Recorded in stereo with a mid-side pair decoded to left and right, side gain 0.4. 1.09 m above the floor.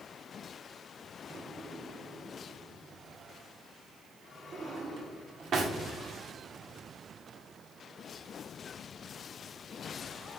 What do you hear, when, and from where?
1.3 s a drawer: 60° right, 1.5 m